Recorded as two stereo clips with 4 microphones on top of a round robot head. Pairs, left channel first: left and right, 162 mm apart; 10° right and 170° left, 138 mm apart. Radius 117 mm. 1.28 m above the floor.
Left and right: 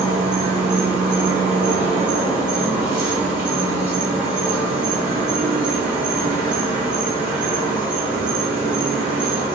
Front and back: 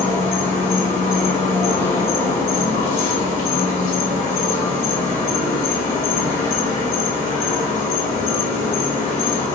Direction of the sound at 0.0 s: 10° right.